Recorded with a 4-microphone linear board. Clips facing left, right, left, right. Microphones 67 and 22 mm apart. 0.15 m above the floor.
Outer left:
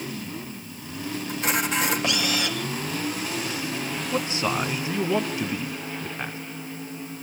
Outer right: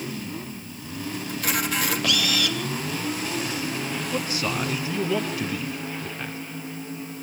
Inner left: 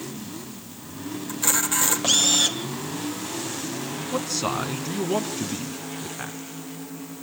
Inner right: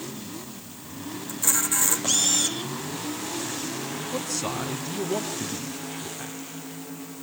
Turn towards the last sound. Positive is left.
turn(degrees=25)  # may be behind; listen again after turning